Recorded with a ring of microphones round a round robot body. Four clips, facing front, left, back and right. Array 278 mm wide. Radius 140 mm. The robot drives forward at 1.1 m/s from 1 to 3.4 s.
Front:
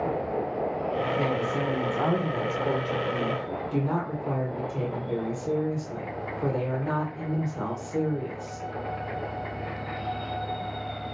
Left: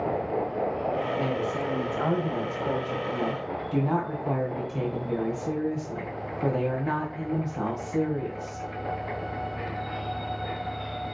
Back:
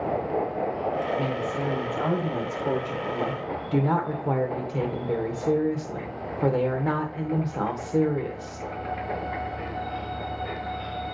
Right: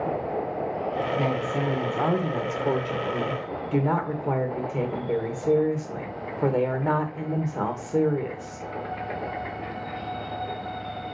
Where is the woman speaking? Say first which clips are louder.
Right 2 dB, front 1 dB; 50° right, 2.5 m; by 8.7 s 125° right, 2.5 m.